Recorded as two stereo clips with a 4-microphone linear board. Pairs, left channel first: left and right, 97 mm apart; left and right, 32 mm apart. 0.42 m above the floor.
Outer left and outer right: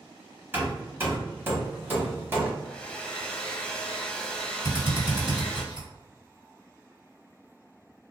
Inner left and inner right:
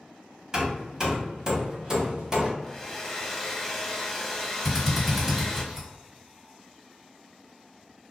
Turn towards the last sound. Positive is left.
turn(degrees=-15)  # may be behind; listen again after turning